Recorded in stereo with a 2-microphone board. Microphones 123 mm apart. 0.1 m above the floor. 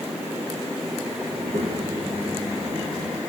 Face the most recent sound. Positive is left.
turn(degrees=-80)